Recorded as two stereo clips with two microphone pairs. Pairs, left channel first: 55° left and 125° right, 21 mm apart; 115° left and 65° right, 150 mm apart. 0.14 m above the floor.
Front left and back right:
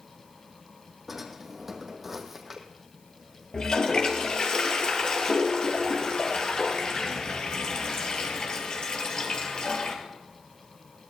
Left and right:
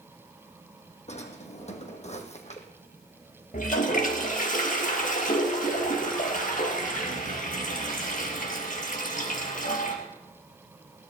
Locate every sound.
1.1 s a drawer: 155° left, 1.8 m
3.5 s a toilet flushing: 100° left, 2.5 m